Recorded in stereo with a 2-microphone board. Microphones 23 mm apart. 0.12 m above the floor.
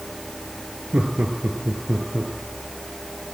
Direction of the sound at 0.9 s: 60° right (ahead or behind).